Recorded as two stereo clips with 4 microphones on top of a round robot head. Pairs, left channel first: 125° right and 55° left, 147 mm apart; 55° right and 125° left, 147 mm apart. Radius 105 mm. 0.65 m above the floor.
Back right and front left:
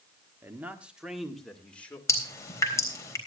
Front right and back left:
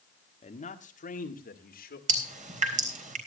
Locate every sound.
0.4 s a man speaking: 20° right, 1.6 m; by 2.0 s 45° right, 2.5 m
2.1 s dripping: 165° left, 3.5 m